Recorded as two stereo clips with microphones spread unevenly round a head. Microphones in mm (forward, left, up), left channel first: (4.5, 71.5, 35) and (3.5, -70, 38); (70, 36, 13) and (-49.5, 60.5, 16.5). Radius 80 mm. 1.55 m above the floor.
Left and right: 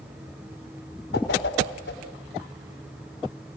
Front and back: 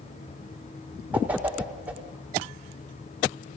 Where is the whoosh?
90° left, 6 m.